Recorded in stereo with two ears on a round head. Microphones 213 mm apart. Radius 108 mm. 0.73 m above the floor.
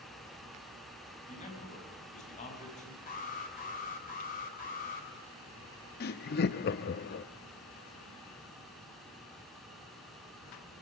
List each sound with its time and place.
1.2 s a man speaking: 30° left (ahead or behind), 5.5 m
3.1 s an alarm: 35° left (ahead or behind), 3.5 m
6.0 s laughter: 40° left (ahead or behind), 0.6 m